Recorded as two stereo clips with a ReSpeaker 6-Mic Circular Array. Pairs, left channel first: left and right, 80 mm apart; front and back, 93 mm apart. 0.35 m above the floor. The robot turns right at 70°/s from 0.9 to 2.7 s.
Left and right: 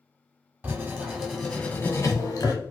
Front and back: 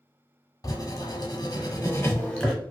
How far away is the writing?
About 0.8 m.